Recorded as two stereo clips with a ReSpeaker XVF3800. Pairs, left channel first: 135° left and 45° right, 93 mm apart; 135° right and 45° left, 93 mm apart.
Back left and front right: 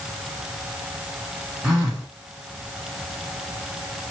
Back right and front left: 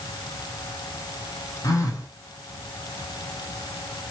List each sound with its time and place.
1.6 s a phone buzzing: 120° right, 1.2 m